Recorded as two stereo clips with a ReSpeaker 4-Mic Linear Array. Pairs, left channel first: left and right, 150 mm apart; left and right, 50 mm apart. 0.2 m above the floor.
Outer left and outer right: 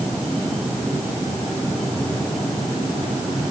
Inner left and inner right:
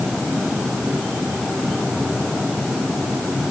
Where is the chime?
No chime in this recording.